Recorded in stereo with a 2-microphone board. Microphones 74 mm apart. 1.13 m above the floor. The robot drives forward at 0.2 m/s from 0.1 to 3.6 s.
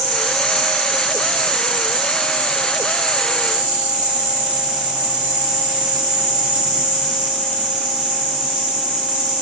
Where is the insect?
35° right (ahead or behind), 0.9 m; by 9.4 s 20° right (ahead or behind), 1.5 m.